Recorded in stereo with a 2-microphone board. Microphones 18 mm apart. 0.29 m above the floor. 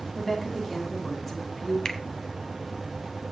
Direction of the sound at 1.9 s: 45° left (ahead or behind).